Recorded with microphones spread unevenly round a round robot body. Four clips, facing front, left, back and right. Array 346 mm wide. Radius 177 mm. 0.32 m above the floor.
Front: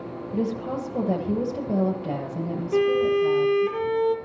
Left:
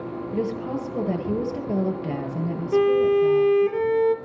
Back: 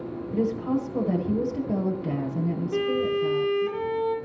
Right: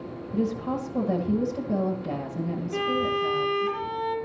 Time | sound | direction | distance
0.3 | a woman speaking | 110° left | 9 m
2.7 | a violin | 70° left | 4.5 m